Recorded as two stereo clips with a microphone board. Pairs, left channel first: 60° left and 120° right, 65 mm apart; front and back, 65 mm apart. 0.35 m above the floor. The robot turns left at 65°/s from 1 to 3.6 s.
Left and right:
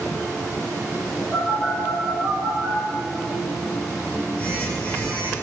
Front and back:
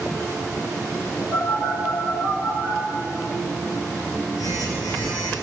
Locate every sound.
1.3 s a phone buzzing: 140° left, 4.5 m; by 5.3 s 10° right, 4.5 m